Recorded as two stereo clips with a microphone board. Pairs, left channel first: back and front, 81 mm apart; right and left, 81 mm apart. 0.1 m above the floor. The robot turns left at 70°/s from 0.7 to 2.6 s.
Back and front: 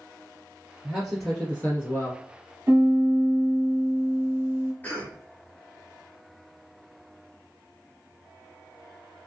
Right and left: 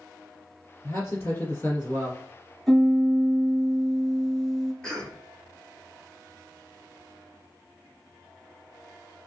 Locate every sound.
0.8 s a man speaking: 70° right, 2.0 m; by 2.2 s 165° right, 2.0 m
2.7 s a piano: straight ahead, 1.6 m
4.8 s a cough: 155° right, 1.3 m